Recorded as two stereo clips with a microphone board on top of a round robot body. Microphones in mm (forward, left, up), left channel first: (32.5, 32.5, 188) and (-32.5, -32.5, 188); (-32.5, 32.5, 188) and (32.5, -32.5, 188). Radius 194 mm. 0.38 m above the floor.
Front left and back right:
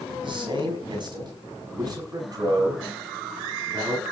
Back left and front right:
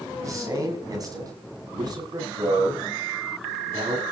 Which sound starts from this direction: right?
A man speaking, at 0.2 s.